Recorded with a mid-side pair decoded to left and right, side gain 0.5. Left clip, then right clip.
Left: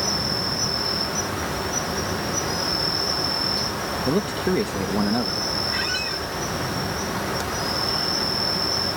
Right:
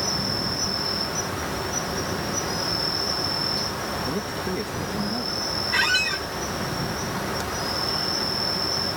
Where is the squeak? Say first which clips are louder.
Right 4 dB; 45° right.